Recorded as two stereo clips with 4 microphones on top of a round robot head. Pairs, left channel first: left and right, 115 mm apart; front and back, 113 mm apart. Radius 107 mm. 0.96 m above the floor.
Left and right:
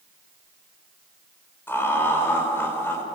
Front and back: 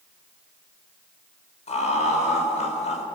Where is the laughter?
20° left, 5 m.